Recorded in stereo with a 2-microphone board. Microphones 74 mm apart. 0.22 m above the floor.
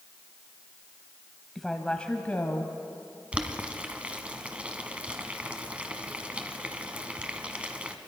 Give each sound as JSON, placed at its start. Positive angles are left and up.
{"t": 1.6, "sound": "a woman speaking", "side_deg": 0, "distance_m": 1.2}
{"t": 3.3, "sound": "boiling", "side_deg": -15, "distance_m": 1.2}